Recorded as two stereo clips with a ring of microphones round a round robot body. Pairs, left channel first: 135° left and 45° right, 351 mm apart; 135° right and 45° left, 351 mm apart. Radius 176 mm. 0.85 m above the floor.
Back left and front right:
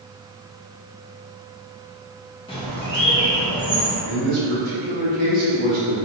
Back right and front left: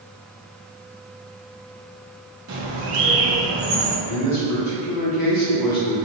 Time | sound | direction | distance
2.5 | a bird | 65° left | 0.8 m
4.0 | a man speaking | 105° right | 1.4 m